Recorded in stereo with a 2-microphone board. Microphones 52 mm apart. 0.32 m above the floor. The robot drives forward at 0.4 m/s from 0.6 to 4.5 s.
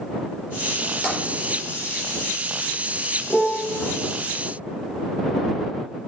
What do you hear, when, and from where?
1.0 s tapping: 30° left (ahead or behind), 5 m
3.3 s a piano: 20° left (ahead or behind), 1.5 m; by 3.8 s 15° left (ahead or behind), 1.7 m